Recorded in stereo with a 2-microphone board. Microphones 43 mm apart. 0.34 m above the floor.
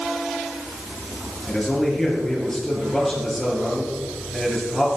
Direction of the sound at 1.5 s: 5° left (ahead or behind).